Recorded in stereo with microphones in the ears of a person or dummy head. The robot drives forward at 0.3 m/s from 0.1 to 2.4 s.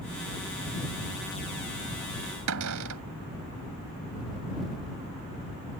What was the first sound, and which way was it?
A cupboard door, 85° right.